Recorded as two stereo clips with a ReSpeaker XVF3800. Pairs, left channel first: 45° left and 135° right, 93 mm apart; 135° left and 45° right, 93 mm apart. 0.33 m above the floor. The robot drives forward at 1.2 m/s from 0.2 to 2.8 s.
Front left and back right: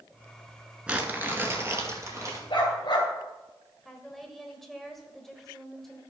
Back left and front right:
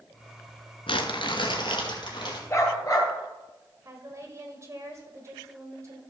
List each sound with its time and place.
0.9 s crumpling: 145° left, 1.0 m; by 2.4 s 170° left, 2.5 m
2.5 s a dog barking: 75° left, 3 m; by 3.1 s 80° left, 2.5 m
3.9 s a woman speaking: 40° right, 1.5 m